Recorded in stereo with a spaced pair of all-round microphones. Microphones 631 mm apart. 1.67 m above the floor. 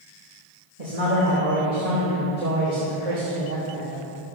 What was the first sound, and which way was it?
A man speaking, 80° right.